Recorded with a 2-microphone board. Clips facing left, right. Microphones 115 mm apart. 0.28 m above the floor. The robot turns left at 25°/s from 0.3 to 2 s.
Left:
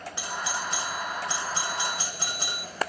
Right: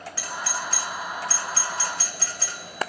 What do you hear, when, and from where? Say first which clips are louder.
0.2 s a doorbell: even; 20° left (ahead or behind), 1.5 m